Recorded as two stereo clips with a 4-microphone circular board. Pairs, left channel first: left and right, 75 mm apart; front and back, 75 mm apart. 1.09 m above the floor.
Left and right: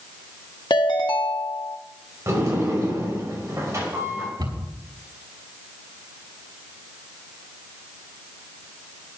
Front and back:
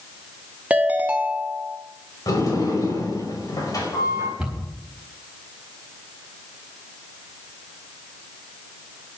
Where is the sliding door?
40° right, 5 m.